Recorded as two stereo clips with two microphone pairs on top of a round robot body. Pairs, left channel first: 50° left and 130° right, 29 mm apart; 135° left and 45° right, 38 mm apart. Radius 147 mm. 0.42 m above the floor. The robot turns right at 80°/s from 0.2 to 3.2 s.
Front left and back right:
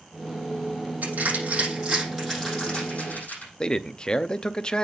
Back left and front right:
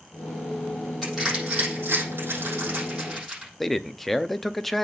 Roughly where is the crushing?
Behind right.